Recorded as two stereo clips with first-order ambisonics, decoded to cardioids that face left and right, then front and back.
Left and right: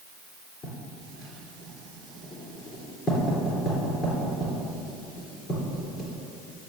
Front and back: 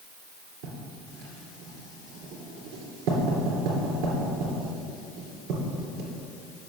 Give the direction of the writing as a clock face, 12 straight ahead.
7 o'clock.